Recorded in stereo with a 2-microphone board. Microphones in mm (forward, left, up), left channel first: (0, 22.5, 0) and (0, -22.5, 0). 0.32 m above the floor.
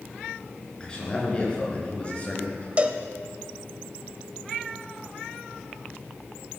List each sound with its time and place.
0.8 s a man speaking: 15° left (ahead or behind), 5 m; by 2.7 s 30° left (ahead or behind), 5 m
2.8 s a cowbell: 30° right (ahead or behind), 0.8 m